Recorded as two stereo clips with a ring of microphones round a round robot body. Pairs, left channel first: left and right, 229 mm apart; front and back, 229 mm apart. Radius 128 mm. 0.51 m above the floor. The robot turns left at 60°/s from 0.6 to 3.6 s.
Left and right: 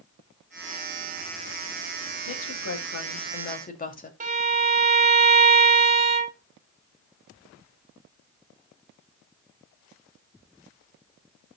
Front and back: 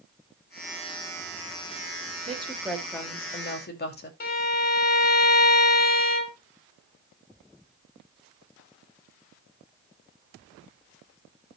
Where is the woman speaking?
120° left, 2.5 m; by 4.1 s 40° left, 2.5 m.